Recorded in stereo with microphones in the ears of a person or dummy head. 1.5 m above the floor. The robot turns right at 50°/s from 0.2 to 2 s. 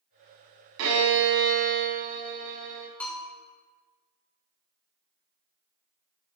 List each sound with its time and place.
0.8 s a violin: 105° right, 1.1 m; by 2.9 s 45° right, 1.1 m
3.0 s a bell: 10° left (ahead or behind), 1.8 m